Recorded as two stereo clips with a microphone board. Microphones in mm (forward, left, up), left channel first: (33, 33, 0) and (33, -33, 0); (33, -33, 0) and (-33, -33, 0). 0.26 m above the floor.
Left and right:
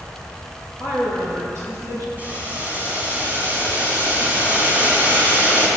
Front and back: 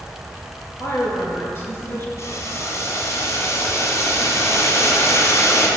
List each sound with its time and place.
0.8 s a woman speaking: 40° right, 4 m; by 2.1 s 60° right, 4 m
2.2 s boiling: 30° right, 2.5 m